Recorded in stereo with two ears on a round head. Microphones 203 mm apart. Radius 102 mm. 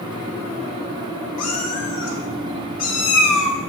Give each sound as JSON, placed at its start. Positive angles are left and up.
{"t": 1.4, "sound": "a cat meowing", "side_deg": 75, "distance_m": 1.5}